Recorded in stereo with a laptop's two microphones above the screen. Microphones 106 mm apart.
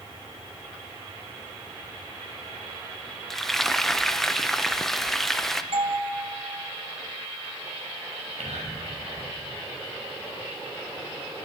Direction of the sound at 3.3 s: 5° left (ahead or behind).